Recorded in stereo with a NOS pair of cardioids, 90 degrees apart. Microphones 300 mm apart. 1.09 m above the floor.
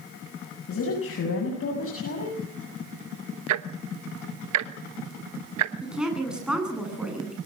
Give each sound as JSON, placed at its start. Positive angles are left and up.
{"t": 0.7, "sound": "a woman speaking", "azimuth_deg": 50, "distance_m": 7.5}
{"t": 3.5, "sound": "ticking", "azimuth_deg": -70, "distance_m": 1.3}
{"t": 5.8, "sound": "a woman speaking", "azimuth_deg": -5, "distance_m": 10.0}